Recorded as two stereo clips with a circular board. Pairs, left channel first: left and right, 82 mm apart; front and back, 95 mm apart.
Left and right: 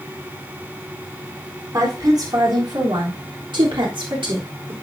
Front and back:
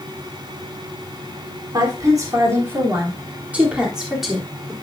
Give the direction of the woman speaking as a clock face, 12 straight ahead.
4 o'clock.